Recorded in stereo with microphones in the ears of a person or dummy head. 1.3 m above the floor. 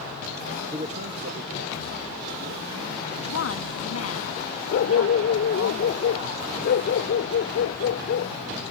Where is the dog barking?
55° left (ahead or behind).